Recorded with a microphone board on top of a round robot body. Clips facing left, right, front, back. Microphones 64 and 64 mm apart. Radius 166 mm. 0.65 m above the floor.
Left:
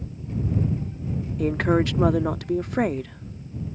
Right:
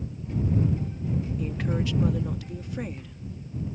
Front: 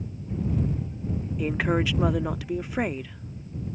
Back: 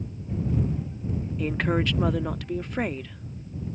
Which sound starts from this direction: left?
A woman speaking, at 1.4 s.